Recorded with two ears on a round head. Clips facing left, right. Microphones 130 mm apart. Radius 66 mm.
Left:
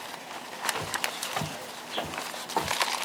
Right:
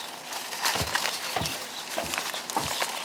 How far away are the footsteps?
About 1.2 m.